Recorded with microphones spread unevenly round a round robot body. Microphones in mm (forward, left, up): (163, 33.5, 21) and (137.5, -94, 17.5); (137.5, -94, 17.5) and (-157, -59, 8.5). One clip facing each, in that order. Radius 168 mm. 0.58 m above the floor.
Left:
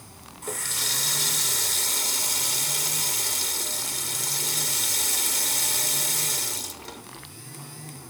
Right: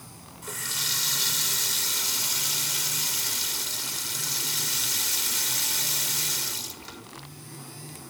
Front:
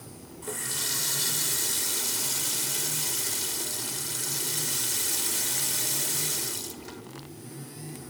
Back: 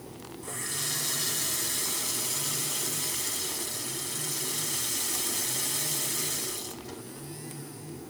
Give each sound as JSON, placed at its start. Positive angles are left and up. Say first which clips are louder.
{"t": 0.4, "sound": "a running tap", "louder": "left 5 dB, front 2 dB", "azimuth_deg": 35, "distance_m": 1.4}